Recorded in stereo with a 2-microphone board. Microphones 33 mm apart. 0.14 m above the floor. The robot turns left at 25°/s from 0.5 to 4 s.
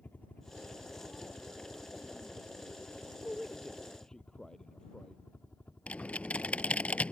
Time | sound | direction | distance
0.0 | a helicopter | 50° left (ahead or behind) | ?
3.2 | a man speaking | centre (ahead or behind) | ?
5.9 | typing on a keyboard | 45° left (ahead or behind) | ?